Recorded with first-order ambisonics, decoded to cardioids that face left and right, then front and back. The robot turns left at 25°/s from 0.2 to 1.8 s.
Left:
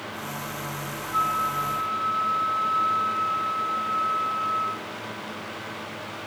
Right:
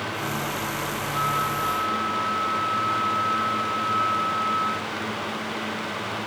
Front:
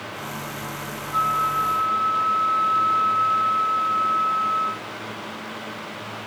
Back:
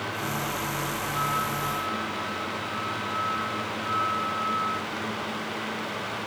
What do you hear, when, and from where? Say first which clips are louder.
1.1 s a flute: left 2 dB, front 9 dB; 40° left, 4 m; by 4.8 s 25° left, 4 m